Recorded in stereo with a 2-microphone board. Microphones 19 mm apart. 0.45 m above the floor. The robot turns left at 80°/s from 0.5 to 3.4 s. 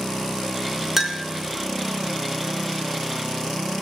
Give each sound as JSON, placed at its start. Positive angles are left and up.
{"t": 1.0, "sound": "a clink", "side_deg": -15, "distance_m": 0.7}